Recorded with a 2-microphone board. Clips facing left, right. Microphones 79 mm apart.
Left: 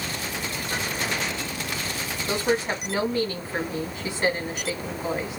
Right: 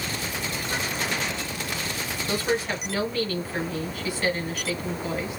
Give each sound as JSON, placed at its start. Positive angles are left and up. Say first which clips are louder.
{"t": 2.3, "sound": "a woman speaking", "louder": "left 2 dB", "side_deg": 25, "distance_m": 2.0}